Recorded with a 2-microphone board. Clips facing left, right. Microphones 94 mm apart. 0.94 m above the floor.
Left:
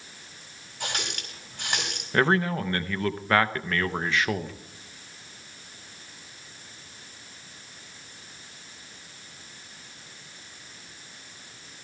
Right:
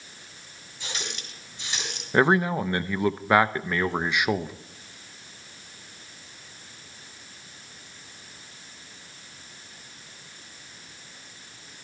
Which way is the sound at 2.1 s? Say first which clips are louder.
Right 2 dB; 15° right (ahead or behind).